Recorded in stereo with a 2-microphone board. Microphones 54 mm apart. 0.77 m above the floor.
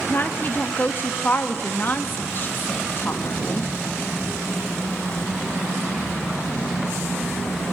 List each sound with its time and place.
0.1 s a woman speaking: 40° left (ahead or behind), 1.1 m